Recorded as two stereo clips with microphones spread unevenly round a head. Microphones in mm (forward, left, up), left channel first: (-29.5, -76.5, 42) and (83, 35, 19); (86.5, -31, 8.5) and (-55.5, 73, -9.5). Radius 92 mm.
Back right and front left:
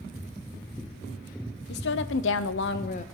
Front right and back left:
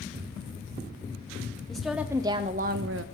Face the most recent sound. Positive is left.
turn(degrees=170)